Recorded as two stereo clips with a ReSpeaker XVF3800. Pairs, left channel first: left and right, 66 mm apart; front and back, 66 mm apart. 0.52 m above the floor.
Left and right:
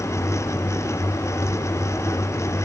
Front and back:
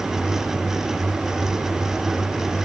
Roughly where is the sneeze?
No sneeze in this recording.